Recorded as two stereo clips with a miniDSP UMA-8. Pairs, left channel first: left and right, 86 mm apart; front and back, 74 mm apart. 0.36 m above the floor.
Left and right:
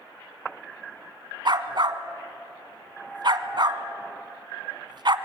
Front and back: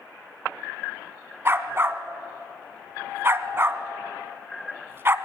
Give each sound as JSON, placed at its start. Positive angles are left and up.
{"t": 1.4, "sound": "a dog barking", "azimuth_deg": -120, "distance_m": 1.0}